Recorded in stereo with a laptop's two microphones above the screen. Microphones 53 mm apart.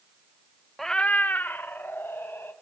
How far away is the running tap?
I don't hear a running tap.